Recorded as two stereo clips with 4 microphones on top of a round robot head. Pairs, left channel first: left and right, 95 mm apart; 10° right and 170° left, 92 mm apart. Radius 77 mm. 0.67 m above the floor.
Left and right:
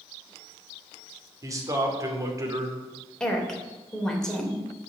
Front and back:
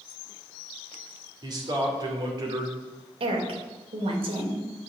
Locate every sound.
1.4 s a man speaking: 140° right, 2.5 m
3.2 s a woman speaking: 175° left, 3 m